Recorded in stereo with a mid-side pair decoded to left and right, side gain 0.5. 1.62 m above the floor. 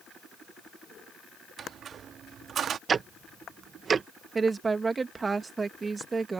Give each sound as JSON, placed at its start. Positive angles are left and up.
{"t": 1.6, "sound": "a squeak", "azimuth_deg": -50}
{"t": 2.9, "sound": "ticking", "azimuth_deg": -35}
{"t": 4.3, "sound": "a woman speaking", "azimuth_deg": -25}